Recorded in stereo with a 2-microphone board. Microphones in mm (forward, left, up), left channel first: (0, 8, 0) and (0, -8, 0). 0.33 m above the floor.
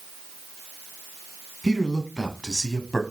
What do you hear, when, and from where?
1.6 s a man speaking: 30° left (ahead or behind), 2.5 m; by 3.0 s 5° left (ahead or behind), 1.9 m